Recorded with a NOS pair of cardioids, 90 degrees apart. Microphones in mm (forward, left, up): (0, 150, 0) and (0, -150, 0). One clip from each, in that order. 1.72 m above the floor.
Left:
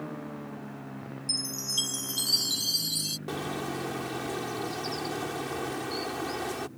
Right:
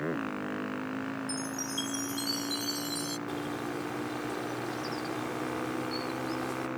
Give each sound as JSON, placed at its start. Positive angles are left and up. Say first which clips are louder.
{"t": 1.3, "sound": "a chime", "louder": "left 4 dB", "azimuth_deg": 60}
{"t": 3.3, "sound": "a bird", "louder": "left 2 dB", "azimuth_deg": 45}